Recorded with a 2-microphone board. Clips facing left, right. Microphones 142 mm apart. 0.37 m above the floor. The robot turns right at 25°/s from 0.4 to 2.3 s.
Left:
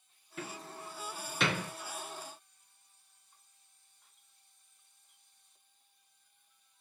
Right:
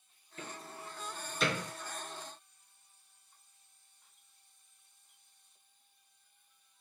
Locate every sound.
0.4 s a door slam: 75° left (ahead or behind), 2.5 m; by 1.7 s 65° left (ahead or behind), 2.5 m